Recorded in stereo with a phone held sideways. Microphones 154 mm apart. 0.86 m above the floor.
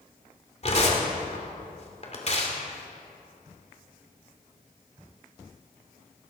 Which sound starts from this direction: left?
Tearing paper, at 0.6 s.